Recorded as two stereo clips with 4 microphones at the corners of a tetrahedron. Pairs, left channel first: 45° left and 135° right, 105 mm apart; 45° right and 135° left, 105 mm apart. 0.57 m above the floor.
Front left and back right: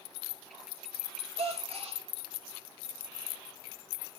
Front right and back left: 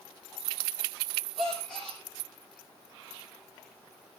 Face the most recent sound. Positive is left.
turn(degrees=-130)